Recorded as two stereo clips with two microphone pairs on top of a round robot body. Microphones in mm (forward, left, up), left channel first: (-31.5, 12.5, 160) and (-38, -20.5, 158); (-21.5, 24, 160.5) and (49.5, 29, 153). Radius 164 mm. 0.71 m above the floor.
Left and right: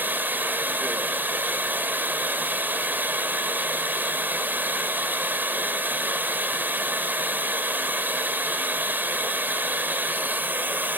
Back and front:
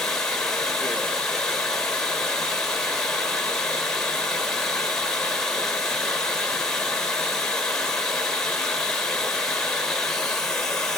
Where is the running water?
90° right, 1.5 m.